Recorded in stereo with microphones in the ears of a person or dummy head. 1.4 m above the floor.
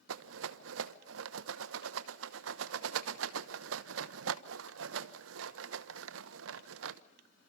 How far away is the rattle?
About 0.8 m.